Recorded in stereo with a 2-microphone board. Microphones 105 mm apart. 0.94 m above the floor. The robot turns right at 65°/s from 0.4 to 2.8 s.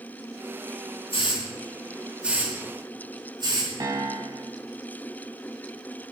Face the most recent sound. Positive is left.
turn(degrees=-35)  # may be behind; listen again after turning